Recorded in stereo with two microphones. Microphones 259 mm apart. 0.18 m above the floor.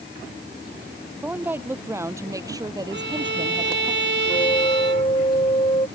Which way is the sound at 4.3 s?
25° left (ahead or behind).